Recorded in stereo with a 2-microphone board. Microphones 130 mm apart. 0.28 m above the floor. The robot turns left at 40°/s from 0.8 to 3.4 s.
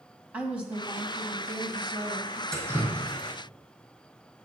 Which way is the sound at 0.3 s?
10° right.